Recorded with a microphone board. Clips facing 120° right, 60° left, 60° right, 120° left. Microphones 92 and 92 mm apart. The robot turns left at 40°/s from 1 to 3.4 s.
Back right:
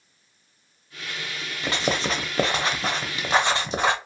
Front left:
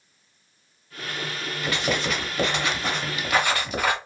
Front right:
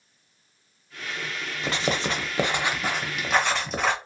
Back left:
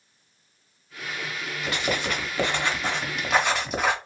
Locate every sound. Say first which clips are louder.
1.6 s writing: back right 1 dB, front right 1 dB; 90° right, 0.8 m; by 4.0 s 160° right, 0.8 m